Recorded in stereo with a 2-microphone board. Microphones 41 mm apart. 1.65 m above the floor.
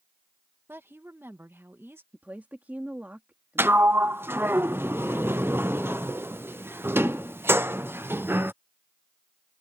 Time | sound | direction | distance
0.7 | a woman speaking | 70° right (ahead or behind) | ?
2.1 | a woman speaking | 45° right (ahead or behind) | ?
3.6 | a sliding door | 65° right (ahead or behind) | ?